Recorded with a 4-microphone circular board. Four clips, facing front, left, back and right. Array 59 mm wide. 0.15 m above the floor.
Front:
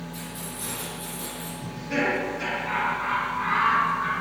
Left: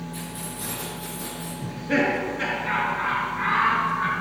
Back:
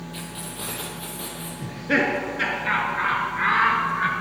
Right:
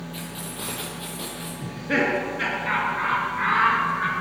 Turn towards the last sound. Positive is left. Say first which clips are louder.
# even, back 4 dB
turn(degrees=-165)